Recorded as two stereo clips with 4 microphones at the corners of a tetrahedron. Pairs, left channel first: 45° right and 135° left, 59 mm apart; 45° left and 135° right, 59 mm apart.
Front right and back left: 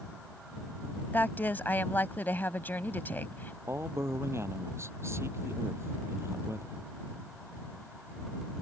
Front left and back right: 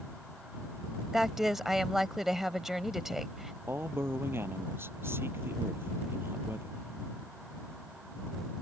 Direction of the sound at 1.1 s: 50° right.